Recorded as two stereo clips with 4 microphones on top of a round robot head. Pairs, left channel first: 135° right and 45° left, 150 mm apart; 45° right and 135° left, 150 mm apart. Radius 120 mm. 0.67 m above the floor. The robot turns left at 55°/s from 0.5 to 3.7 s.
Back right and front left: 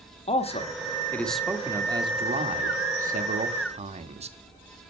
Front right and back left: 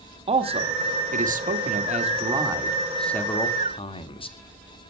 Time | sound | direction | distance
0.3 | a man speaking | straight behind | 1.6 m